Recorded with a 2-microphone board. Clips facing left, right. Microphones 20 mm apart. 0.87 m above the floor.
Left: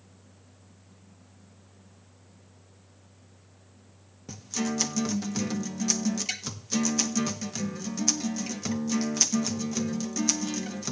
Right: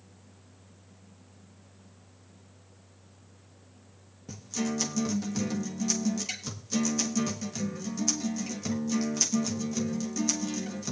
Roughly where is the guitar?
Centre.